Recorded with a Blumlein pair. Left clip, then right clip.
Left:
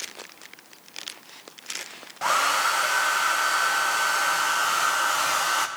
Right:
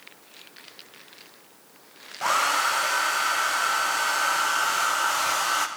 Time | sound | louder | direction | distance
2.2 | a hair dryer | even | straight ahead | 0.8 m